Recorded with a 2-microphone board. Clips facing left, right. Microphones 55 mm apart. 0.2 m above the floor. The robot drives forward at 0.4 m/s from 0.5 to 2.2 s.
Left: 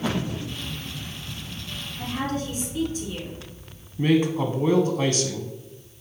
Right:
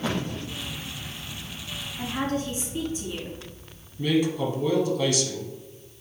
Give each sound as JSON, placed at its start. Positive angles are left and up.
{"t": 2.0, "sound": "a woman speaking", "side_deg": -25, "distance_m": 2.0}
{"t": 4.0, "sound": "a man speaking", "side_deg": 40, "distance_m": 1.2}